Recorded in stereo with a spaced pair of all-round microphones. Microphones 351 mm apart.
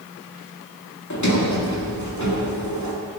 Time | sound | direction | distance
1.1 | a sliding door | 55° left (ahead or behind) | 1.8 m